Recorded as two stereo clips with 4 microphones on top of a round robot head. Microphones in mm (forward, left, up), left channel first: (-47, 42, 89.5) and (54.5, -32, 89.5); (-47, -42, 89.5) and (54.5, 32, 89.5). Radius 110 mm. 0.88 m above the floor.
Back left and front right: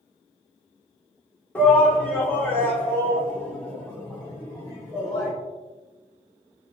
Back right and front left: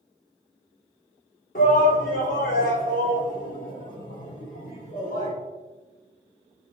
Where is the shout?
135° right, 2.5 m; by 5.3 s 145° right, 6 m.